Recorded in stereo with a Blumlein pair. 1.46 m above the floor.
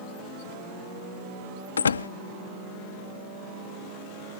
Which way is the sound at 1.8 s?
70° left.